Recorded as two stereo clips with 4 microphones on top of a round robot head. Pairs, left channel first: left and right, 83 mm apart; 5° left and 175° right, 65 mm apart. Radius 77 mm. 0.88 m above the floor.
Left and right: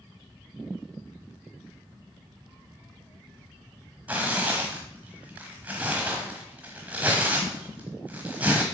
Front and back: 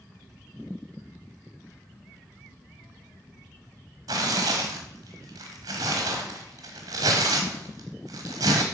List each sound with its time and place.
4.1 s tearing paper: 165° right, 0.8 m